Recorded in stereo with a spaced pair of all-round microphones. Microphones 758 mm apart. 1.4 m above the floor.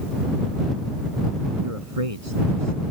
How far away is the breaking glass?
I don't hear breaking glass.